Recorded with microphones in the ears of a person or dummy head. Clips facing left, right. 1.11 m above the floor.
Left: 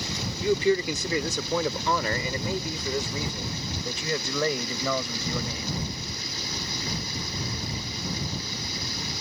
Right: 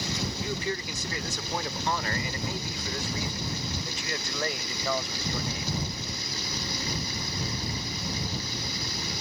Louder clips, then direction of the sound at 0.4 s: Left 15 dB; 60° left (ahead or behind).